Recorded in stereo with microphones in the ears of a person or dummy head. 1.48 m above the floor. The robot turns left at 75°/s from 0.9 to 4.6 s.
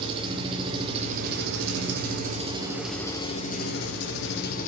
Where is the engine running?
35° right, 0.9 m; by 4.7 s 50° left, 0.9 m.